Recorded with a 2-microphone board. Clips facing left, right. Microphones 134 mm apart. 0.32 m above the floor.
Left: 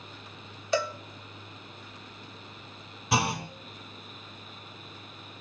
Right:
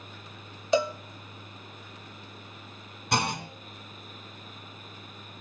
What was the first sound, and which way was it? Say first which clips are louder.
A cowbell: right 4 dB; 20° right (ahead or behind).